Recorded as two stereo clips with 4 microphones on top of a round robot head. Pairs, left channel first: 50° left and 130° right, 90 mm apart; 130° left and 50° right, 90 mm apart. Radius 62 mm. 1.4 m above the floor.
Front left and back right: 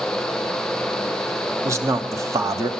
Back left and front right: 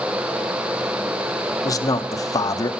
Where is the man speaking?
175° left, 0.8 m.